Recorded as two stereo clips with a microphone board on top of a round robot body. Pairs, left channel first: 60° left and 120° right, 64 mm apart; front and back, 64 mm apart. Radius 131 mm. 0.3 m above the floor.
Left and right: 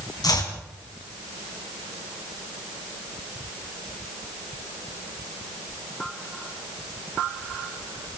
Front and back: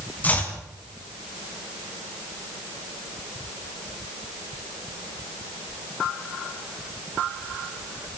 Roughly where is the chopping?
Ahead left.